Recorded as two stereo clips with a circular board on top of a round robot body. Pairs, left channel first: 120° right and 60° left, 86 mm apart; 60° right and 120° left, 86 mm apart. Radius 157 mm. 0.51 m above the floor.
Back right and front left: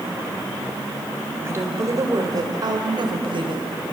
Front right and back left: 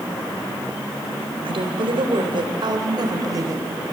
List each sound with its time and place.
1.4 s a woman speaking: 120° left, 3.5 m; by 3.8 s 65° left, 3.5 m